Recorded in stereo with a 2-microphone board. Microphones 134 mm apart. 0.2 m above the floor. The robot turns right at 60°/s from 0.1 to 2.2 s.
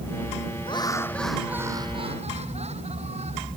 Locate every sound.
0.7 s laughter: 140° left; by 3.5 s 125° right